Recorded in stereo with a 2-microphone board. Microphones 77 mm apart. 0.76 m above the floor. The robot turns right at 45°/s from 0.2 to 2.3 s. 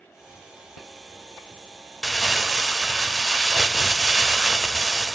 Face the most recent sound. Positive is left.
turn(degrees=-5)  # may be behind; listen again after turning